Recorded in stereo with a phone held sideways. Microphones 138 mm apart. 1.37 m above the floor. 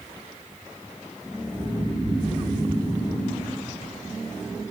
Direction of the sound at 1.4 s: 40° right (ahead or behind).